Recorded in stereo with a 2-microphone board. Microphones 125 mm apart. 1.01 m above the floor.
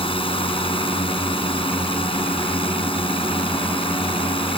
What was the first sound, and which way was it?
A drone, 45° left (ahead or behind).